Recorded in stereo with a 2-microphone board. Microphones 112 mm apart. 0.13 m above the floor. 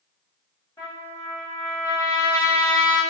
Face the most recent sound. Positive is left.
turn(degrees=35)  # may be behind; listen again after turning